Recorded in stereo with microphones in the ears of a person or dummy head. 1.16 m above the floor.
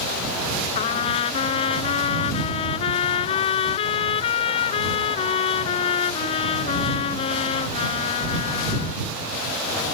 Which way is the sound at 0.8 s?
35° left (ahead or behind).